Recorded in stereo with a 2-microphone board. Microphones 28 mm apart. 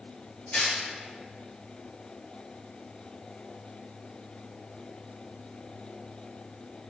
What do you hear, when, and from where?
0.5 s tearing paper: 40° left (ahead or behind), 1.9 m